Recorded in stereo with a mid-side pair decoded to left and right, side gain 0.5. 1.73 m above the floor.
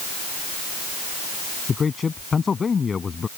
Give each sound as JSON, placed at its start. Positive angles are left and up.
{"t": 1.7, "sound": "a man speaking", "azimuth_deg": 35}